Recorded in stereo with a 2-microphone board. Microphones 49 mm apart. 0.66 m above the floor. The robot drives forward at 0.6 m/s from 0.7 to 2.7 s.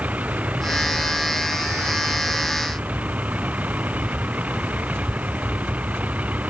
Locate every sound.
0.0 s a vehicle: 30° right (ahead or behind)